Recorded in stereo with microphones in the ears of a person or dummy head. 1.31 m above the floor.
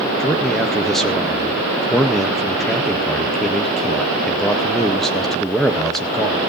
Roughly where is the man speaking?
Centre.